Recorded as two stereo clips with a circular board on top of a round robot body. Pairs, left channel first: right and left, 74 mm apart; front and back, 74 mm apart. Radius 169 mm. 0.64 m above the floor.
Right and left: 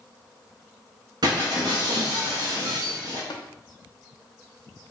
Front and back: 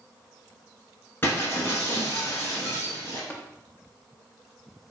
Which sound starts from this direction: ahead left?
Breaking glass, at 1.2 s.